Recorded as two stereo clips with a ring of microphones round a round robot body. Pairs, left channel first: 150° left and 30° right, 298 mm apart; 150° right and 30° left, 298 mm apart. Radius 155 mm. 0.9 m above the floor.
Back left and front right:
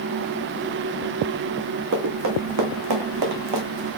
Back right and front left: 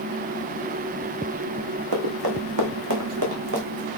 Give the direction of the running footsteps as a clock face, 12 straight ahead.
11 o'clock.